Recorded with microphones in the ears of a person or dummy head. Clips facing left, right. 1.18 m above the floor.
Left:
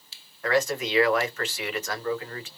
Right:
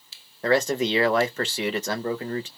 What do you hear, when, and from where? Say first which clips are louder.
0.4 s a man speaking: right 3 dB; 25° right (ahead or behind), 0.7 m